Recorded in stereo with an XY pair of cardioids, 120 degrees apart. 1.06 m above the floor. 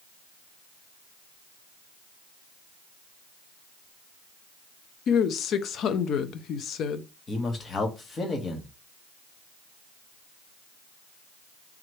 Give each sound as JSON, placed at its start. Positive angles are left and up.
{"t": 5.1, "sound": "a woman speaking", "azimuth_deg": 55, "distance_m": 0.7}
{"t": 7.3, "sound": "a man speaking", "azimuth_deg": 30, "distance_m": 1.7}